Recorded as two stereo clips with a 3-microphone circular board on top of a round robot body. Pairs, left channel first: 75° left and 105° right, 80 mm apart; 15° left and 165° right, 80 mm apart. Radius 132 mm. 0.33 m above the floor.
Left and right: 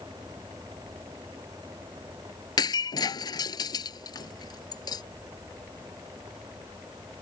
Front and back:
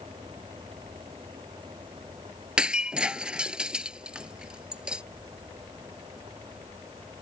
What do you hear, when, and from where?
2.6 s breaking glass: 115° left